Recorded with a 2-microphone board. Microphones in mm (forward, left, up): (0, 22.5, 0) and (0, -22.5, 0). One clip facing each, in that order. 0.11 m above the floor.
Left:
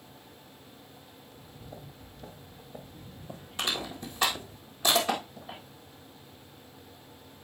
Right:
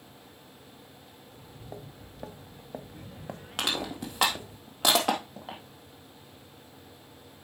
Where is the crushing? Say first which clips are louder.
Right 2 dB; 70° right (ahead or behind), 2.5 m.